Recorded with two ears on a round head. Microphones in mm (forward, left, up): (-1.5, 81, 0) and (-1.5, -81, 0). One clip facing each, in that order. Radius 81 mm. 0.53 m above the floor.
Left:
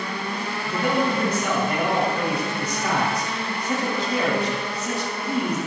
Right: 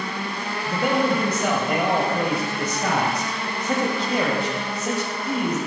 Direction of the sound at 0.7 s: 55° right (ahead or behind).